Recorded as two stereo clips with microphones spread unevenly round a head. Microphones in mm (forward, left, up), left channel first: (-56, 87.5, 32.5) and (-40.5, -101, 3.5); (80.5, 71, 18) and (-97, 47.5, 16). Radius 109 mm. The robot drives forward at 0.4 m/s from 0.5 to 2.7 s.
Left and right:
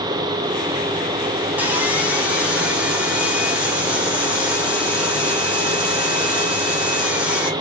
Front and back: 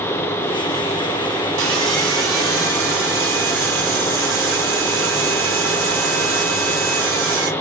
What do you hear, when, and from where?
1.6 s sawing: 170° right, 1.5 m